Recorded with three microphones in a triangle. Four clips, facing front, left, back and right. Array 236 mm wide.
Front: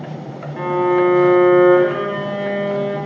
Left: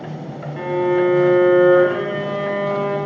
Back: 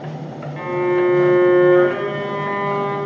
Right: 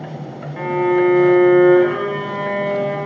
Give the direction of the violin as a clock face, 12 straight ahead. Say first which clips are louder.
Right 1 dB, front 2 dB; 1 o'clock.